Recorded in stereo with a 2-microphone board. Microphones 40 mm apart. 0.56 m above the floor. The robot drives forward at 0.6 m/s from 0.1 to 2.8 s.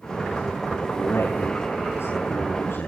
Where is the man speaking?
80° left, 8.5 m; by 2.9 s 75° left (ahead or behind), 8.5 m.